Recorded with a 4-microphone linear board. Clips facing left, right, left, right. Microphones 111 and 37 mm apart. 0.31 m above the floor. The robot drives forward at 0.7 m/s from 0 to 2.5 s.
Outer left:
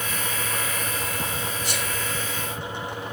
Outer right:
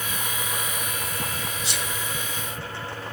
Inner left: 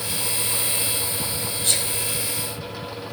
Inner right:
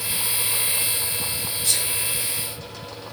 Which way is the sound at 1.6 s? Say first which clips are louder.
Outer left 2 dB, inner left 1 dB; 50° left (ahead or behind).